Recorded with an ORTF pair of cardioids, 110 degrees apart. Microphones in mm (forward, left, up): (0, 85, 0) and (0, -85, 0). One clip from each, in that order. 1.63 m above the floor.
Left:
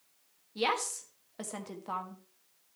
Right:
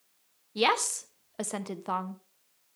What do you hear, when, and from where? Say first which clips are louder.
0.6 s a woman speaking: right 5 dB; 35° right, 1.1 m